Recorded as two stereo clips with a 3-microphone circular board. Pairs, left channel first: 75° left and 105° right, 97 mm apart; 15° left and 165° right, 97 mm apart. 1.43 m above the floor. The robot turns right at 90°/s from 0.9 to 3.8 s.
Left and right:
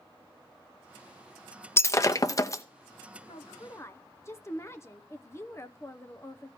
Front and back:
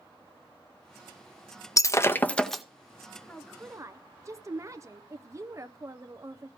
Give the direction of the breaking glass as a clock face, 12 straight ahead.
11 o'clock.